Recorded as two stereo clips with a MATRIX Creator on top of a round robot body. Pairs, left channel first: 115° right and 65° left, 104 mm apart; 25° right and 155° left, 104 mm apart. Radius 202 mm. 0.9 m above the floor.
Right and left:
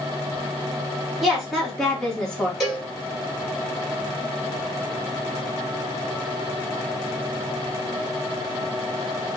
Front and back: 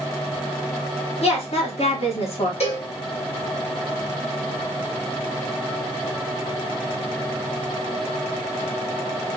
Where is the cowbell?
20° right, 2 m.